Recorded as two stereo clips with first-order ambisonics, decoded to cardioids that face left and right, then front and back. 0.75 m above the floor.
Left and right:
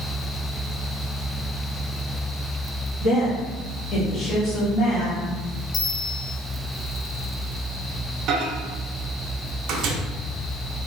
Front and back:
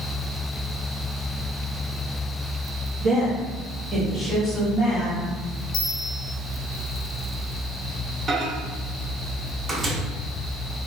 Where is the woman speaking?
140° left, 1.2 m; by 5.2 s 45° left, 1.2 m.